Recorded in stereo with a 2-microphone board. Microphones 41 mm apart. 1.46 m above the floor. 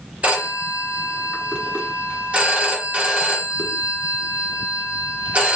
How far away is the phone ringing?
About 1.1 m.